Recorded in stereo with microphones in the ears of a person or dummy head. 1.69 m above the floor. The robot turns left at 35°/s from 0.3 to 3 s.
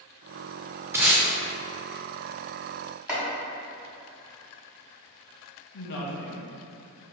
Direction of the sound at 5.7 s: 65° left (ahead or behind).